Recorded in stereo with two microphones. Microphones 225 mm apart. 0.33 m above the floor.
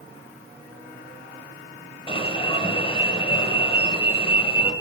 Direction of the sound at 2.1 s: 25° left (ahead or behind).